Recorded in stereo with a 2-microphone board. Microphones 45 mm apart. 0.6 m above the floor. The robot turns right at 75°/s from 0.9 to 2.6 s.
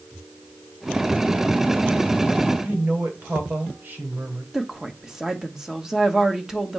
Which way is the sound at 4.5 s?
10° right (ahead or behind).